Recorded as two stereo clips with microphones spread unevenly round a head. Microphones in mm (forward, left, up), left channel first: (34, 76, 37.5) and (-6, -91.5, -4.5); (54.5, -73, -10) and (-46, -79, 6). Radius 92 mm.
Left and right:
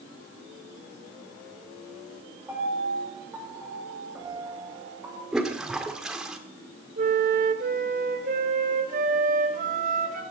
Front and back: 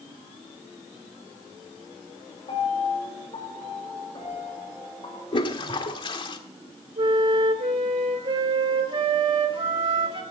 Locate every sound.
2.5 s a piano: 25° right, 7 m
5.3 s a toilet flushing: 5° right, 1.4 m
7.0 s a flute: 155° right, 2.5 m